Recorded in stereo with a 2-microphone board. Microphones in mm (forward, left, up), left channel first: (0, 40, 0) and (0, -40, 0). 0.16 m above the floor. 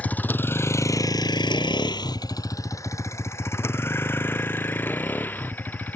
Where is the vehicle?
20° left (ahead or behind).